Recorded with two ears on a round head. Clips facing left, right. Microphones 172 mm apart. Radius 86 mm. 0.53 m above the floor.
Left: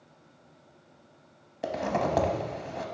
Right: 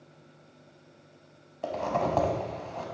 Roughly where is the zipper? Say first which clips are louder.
Even; centre.